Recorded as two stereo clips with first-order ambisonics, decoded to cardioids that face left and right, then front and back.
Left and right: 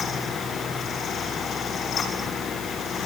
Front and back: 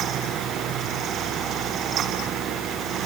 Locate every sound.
Only background noise.